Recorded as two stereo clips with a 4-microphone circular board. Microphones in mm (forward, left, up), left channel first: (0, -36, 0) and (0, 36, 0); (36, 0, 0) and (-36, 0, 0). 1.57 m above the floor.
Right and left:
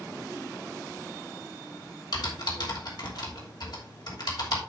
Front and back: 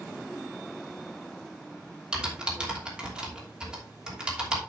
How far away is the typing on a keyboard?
About 3 m.